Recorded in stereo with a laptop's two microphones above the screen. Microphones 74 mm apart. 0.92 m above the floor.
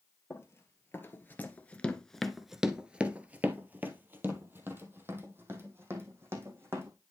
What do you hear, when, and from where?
0.3 s running footsteps: 35° left (ahead or behind), 1.6 m; by 6.9 s 30° right (ahead or behind), 3.5 m